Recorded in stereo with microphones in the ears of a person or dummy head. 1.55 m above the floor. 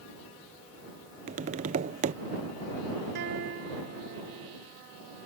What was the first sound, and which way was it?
Tapping, 40° right (ahead or behind).